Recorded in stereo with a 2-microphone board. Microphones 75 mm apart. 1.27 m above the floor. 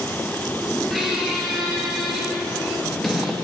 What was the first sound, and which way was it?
A squeak, centre (ahead or behind).